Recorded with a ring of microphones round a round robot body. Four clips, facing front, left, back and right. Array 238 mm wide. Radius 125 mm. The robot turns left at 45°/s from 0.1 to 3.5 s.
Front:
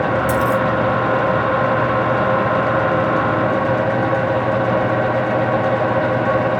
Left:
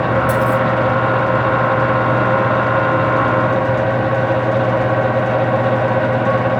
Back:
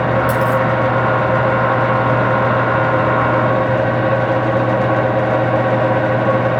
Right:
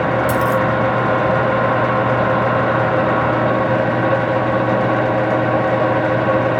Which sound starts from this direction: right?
A dropped coin, at 0.3 s.